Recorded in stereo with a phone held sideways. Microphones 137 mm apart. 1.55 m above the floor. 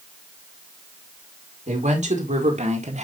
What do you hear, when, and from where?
1.7 s a woman speaking: 60° right (ahead or behind), 3 m